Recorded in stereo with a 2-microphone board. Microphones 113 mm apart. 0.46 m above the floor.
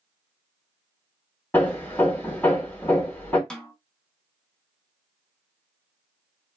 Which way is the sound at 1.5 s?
15° left (ahead or behind).